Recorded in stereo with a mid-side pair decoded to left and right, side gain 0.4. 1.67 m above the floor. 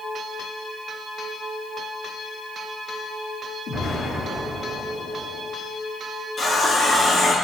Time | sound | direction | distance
3.7 | an explosion | 70° left | 2 m
6.4 | a running tap | 55° left | 2.5 m